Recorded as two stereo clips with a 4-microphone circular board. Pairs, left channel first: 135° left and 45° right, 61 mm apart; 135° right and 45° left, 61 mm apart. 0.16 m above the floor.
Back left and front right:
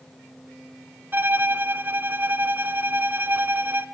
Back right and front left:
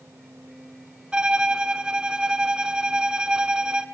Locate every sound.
1.1 s a violin: 25° right, 1.0 m